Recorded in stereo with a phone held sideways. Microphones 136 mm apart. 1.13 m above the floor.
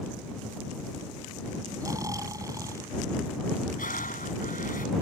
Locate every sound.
1.8 s snoring: 25° right (ahead or behind)
3.8 s breathing: 85° left